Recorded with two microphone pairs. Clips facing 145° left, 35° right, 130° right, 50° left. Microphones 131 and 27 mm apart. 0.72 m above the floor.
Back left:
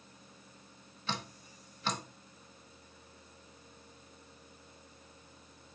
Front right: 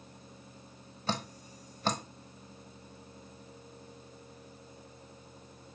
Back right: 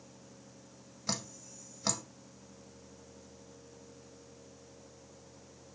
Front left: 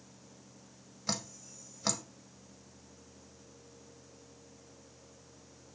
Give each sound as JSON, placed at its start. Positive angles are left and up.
{"t": 1.1, "sound": "dripping", "azimuth_deg": -35, "distance_m": 1.0}